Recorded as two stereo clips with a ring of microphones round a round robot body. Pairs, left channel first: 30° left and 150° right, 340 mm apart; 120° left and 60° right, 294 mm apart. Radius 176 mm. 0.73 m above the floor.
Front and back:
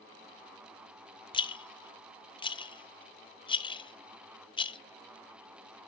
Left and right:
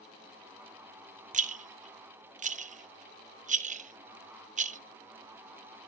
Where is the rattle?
30° right, 0.8 m.